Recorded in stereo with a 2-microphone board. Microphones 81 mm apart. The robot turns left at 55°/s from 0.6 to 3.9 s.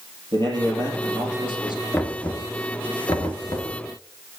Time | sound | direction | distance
0.3 | a man speaking | 105° right | 4 m
1.9 | knocking | 15° left (ahead or behind) | 1.2 m